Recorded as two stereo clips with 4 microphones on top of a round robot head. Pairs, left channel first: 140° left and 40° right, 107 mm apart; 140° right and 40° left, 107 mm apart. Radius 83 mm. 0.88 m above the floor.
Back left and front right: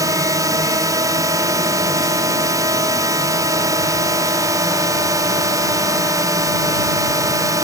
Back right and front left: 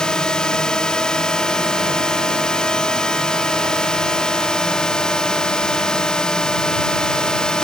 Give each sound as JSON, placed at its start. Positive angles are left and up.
{"t": 0.0, "sound": "a drone", "azimuth_deg": -65}